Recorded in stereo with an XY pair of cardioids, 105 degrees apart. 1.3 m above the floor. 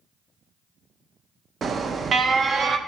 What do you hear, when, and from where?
1.6 s an alarm: 45° right, 0.5 m